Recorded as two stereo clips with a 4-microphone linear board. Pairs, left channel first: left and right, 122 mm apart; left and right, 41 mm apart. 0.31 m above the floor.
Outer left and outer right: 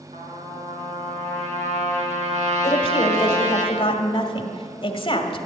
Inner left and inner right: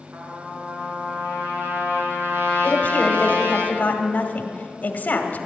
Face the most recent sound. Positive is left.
turn(degrees=45)  # may be behind; listen again after turning